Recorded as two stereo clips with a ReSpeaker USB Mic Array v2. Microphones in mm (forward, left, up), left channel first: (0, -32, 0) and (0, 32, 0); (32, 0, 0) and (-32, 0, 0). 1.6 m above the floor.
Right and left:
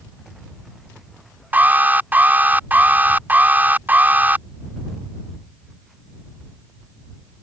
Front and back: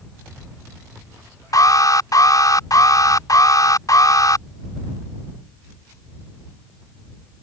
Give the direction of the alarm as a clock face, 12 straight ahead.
11 o'clock.